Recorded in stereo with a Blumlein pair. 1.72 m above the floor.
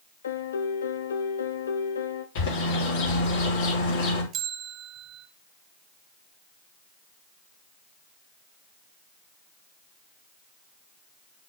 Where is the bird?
50° left, 3.5 m.